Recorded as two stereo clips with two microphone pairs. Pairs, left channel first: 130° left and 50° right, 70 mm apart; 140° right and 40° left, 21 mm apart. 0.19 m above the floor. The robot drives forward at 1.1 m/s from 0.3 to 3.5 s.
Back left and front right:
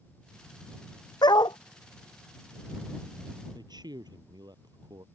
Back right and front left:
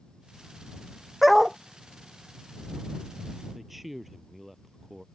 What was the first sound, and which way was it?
A dog barking, 125° left.